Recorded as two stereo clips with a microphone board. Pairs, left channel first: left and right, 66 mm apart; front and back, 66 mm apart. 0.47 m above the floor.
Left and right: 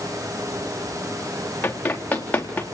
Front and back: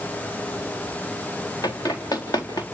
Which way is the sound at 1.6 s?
25° left.